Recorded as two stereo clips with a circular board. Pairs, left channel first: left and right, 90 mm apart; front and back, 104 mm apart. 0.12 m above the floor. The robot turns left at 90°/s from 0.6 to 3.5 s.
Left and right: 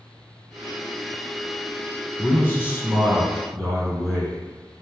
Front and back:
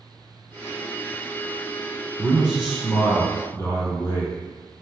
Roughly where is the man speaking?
Behind left.